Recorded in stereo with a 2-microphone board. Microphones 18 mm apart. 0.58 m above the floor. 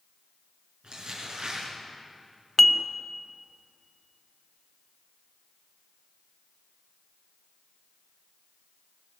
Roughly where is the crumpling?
Right.